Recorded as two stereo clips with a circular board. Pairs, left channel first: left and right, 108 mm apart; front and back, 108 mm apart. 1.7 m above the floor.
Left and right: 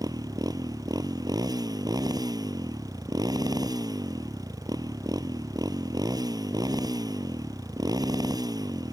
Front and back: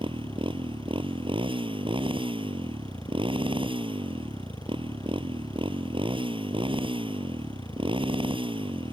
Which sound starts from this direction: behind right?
A motorcycle, at 0.0 s.